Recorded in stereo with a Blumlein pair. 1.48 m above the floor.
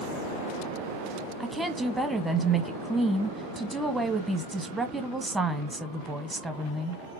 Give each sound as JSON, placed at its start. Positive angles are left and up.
{"t": 1.4, "sound": "a woman speaking", "azimuth_deg": -5, "distance_m": 0.8}